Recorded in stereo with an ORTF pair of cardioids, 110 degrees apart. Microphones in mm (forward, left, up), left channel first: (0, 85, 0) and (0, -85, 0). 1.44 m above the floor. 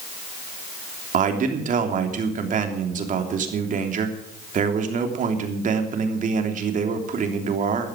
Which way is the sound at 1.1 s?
50° right.